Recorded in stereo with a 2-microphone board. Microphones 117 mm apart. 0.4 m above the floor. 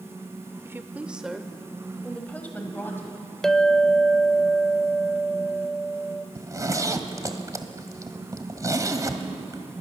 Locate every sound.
0.7 s a woman speaking: 20° right (ahead or behind), 1.0 m; by 3.2 s 20° left (ahead or behind), 2.5 m
3.4 s a clink: centre (ahead or behind), 0.6 m
6.3 s a zipper: 30° right (ahead or behind), 1.4 m